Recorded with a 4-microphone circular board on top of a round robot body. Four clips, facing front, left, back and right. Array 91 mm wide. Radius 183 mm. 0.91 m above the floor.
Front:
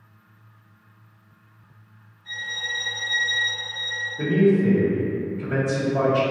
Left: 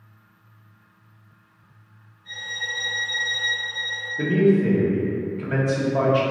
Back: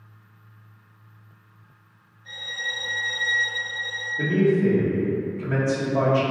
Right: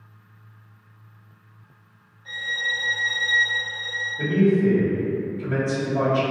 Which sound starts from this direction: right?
A violin, at 2.2 s.